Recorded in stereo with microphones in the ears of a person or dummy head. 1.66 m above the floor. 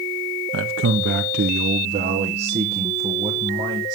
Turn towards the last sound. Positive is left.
turn(degrees=-30)  # may be behind; listen again after turning